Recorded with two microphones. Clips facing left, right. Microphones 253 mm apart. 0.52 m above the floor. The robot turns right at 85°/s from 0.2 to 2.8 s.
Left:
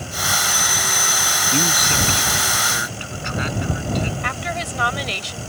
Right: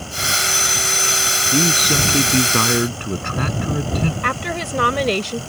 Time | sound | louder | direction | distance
1.5 | a man speaking | right 5 dB | 170° right | ?
4.2 | a woman speaking | right 4 dB | 65° right (ahead or behind) | ?